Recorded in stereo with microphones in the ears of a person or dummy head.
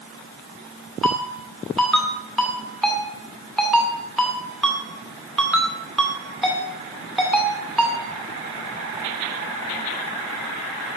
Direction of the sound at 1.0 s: Centre (ahead or behind).